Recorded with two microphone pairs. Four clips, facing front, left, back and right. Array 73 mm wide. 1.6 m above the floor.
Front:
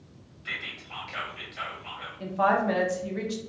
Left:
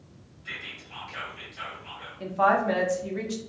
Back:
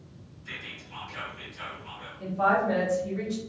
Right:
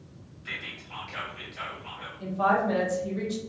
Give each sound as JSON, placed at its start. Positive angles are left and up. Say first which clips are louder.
{"t": 0.5, "sound": "whispering", "louder": "right 1 dB, front 5 dB", "azimuth_deg": -25, "distance_m": 0.9}
{"t": 2.2, "sound": "a woman speaking", "louder": "left 2 dB, even", "azimuth_deg": 55, "distance_m": 0.8}